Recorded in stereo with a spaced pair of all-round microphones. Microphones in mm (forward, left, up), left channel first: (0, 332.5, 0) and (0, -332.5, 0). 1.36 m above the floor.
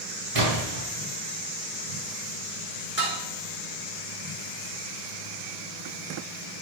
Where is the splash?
65° right (ahead or behind), 3 m.